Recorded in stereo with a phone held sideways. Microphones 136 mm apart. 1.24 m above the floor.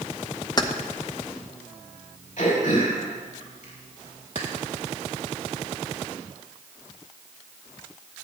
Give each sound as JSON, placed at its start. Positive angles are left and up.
{"t": 0.6, "sound": "keys jangling", "side_deg": 30, "distance_m": 0.8}
{"t": 2.4, "sound": "throat clearing", "side_deg": 60, "distance_m": 5.0}